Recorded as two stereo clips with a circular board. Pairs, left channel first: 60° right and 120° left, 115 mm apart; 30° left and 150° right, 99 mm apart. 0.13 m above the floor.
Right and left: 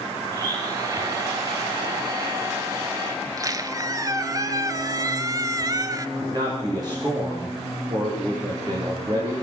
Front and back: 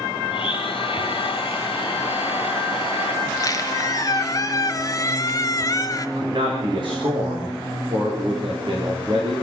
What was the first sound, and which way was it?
A blender, 65° left.